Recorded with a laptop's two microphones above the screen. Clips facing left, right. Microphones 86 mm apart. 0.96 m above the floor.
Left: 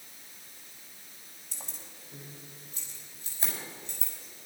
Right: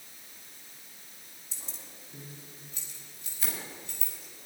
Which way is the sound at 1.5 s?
55° left (ahead or behind).